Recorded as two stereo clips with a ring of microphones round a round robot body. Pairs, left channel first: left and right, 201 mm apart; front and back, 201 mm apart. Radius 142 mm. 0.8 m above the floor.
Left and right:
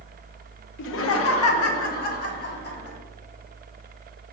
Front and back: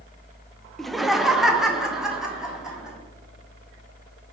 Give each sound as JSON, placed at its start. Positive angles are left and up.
{"t": 0.8, "sound": "laughter", "azimuth_deg": 90, "distance_m": 0.7}